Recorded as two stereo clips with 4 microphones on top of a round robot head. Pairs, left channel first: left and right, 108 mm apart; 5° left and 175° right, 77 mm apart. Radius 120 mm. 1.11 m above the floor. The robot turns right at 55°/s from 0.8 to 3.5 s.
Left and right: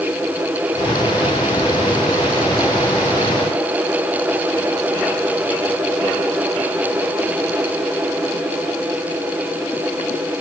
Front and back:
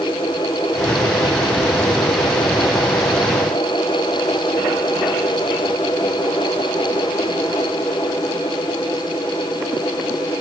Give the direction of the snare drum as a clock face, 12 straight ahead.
I don't hear a snare drum.